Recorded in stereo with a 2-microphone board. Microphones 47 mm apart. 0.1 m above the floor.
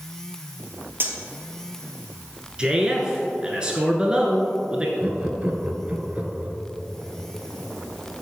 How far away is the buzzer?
No buzzer in this recording.